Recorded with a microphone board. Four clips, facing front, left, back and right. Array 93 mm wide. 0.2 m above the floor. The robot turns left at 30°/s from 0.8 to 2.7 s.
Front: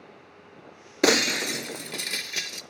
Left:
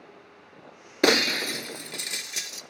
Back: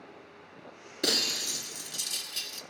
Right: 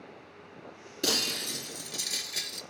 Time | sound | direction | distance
1.0 | breaking glass | 50° left | 0.5 m